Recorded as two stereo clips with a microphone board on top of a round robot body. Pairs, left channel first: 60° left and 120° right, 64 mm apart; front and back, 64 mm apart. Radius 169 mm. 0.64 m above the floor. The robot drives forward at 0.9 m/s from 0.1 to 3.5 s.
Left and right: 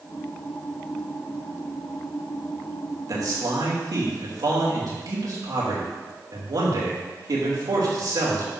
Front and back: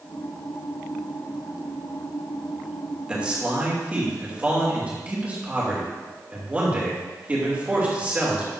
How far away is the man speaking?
About 3 m.